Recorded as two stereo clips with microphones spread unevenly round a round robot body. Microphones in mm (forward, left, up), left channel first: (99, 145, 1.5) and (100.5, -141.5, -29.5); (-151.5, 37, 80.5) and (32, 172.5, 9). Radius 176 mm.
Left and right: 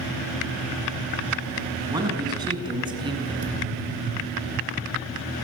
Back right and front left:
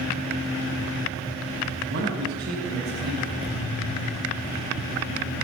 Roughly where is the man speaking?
Ahead.